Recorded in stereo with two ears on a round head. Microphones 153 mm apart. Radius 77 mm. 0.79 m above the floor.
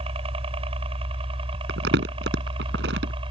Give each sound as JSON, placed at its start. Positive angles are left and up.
{"t": 0.0, "sound": "a helicopter", "side_deg": -35}
{"t": 1.7, "sound": "crumpling", "side_deg": -75}